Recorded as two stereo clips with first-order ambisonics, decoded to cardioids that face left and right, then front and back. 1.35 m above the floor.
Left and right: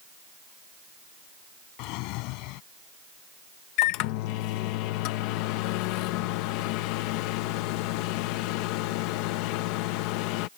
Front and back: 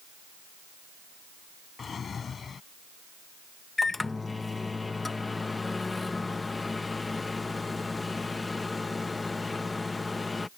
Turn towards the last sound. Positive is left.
turn(degrees=80)